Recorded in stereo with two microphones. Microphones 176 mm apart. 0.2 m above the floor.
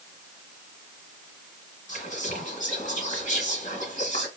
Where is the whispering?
45° left (ahead or behind), 1.8 m.